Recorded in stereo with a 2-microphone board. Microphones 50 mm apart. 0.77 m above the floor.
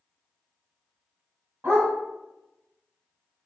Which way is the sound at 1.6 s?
60° right (ahead or behind).